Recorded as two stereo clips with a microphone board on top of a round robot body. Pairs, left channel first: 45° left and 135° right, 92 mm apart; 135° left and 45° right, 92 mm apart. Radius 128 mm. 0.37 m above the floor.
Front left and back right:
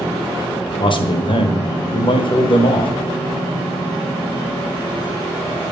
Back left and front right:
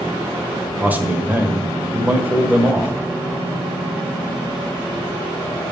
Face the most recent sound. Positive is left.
turn(degrees=25)